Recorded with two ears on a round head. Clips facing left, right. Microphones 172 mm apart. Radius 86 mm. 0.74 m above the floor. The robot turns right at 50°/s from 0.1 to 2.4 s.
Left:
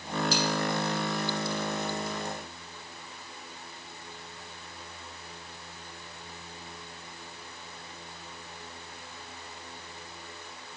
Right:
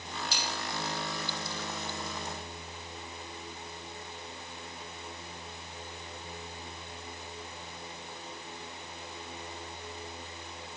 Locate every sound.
0.3 s a dropped coin: 75° left (ahead or behind), 5.5 m; by 0.6 s 65° left (ahead or behind), 5.5 m